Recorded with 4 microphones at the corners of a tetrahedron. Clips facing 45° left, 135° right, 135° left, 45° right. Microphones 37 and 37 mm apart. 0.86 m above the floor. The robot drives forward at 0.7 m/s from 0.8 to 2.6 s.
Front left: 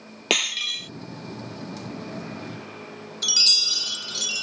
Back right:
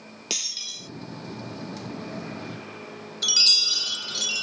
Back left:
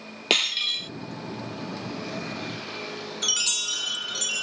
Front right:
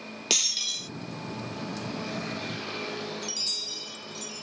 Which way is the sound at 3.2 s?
140° left.